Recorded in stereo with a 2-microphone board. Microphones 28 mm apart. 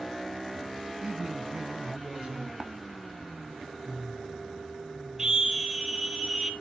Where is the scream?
25° right (ahead or behind), 1.8 m.